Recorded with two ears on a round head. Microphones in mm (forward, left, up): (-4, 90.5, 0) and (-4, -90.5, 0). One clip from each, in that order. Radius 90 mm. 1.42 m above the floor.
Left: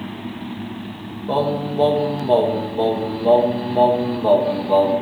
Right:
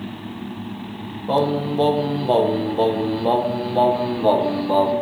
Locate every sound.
1.3 s singing: 20° right (ahead or behind), 1.2 m